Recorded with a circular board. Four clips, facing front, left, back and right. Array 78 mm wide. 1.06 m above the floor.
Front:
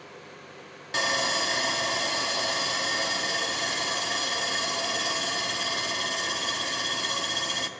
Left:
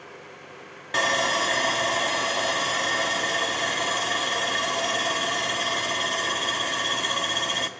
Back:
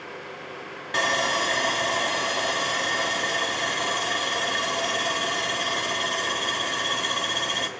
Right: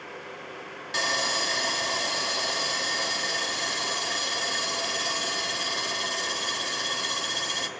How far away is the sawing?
About 0.5 m.